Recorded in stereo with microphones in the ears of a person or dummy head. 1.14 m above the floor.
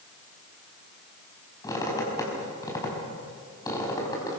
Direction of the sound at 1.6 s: 25° left (ahead or behind).